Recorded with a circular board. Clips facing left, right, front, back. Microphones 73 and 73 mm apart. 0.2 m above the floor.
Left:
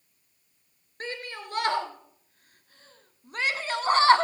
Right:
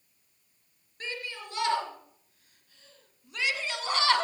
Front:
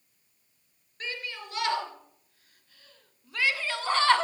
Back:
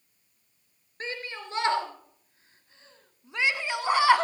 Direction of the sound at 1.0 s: 130° left.